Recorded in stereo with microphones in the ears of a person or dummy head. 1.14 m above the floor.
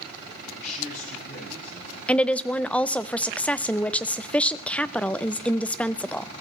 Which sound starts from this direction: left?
A man speaking, at 0.5 s.